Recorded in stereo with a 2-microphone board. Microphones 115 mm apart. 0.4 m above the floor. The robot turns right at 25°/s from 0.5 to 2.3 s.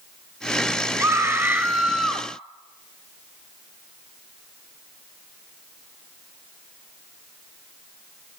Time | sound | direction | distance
1.0 | a scream | 35° right | 1.6 m